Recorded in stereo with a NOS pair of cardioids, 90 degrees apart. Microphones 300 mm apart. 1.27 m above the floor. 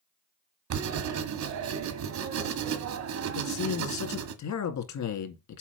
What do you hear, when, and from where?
0.7 s writing: 70° right, 1.7 m
3.4 s a man speaking: 70° left, 2.5 m